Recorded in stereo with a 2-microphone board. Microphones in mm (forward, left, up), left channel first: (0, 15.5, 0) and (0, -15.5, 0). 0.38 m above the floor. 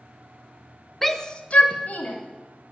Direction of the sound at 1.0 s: 5° left (ahead or behind).